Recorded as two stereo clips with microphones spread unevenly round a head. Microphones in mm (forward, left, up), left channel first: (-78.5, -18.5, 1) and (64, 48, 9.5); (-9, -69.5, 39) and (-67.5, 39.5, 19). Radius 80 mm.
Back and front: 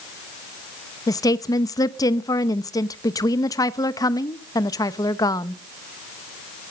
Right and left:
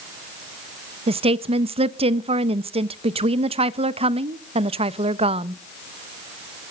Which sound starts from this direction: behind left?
A woman speaking, at 1.1 s.